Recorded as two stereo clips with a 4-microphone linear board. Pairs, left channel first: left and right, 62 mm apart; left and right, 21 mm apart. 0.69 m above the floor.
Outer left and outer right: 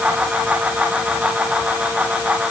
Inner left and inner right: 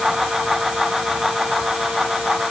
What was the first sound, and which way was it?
Only background noise.